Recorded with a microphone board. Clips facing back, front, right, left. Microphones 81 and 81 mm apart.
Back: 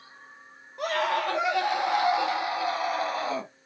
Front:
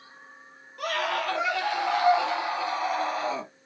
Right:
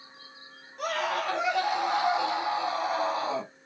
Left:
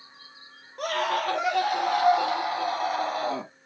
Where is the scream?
115° left, 3.5 m; by 3.5 s 95° left, 3 m.